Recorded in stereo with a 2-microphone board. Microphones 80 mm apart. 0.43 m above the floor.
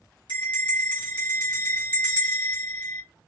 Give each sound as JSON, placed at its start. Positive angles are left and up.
{"t": 0.3, "sound": "a bell", "side_deg": 75, "distance_m": 2.5}